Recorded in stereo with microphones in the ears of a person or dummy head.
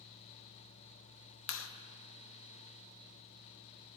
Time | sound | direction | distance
1.5 | a clap | 60° left (ahead or behind) | 0.9 m